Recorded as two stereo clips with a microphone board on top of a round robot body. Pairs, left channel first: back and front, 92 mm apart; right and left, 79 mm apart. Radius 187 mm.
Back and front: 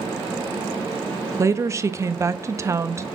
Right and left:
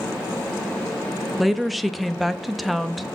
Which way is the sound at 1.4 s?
Straight ahead.